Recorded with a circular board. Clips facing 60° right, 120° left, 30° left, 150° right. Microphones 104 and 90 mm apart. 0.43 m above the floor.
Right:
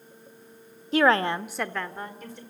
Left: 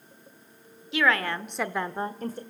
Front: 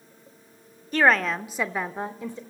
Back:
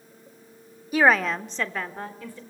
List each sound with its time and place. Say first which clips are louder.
0.9 s a woman speaking: right 4 dB, back 1 dB; 75° right, 1.0 m; by 2.4 s 90° left, 1.3 m